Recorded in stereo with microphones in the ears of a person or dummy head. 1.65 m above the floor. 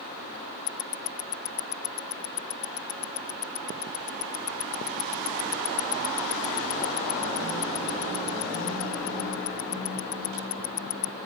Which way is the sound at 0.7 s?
75° left (ahead or behind).